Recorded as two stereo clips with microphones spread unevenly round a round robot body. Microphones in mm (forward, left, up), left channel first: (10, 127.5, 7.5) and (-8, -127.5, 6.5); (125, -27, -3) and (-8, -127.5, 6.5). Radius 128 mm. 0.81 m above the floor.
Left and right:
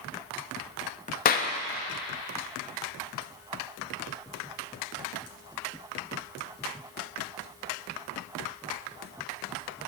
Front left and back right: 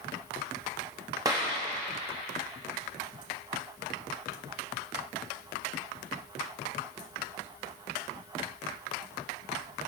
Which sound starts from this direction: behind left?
A clap, at 1.2 s.